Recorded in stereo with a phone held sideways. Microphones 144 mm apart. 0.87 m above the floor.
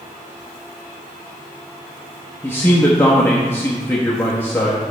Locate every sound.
2.4 s a man speaking: 15° left (ahead or behind), 0.9 m